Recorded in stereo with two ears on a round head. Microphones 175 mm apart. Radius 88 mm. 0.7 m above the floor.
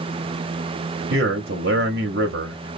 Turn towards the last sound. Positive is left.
turn(degrees=-55)  # may be behind; listen again after turning